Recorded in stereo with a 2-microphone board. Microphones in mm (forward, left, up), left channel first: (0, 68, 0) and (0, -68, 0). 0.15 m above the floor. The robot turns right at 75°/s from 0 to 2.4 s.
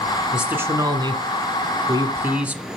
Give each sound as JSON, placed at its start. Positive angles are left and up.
{"t": 0.3, "sound": "a man speaking", "azimuth_deg": -170, "distance_m": 1.4}